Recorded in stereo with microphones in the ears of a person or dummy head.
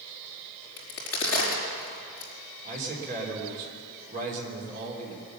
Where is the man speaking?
45° right (ahead or behind), 3.5 m.